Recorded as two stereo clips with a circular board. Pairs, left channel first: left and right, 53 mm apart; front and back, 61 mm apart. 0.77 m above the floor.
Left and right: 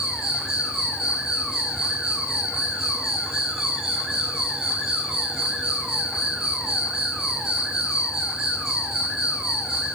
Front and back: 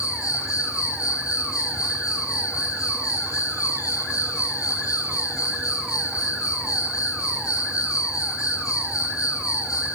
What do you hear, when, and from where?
0.0 s an insect: 10° right, 7.5 m